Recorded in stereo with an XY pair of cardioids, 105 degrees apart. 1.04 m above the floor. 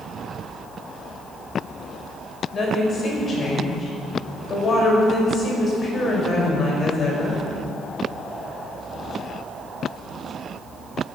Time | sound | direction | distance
2.5 | a woman speaking | 40° left | 5 m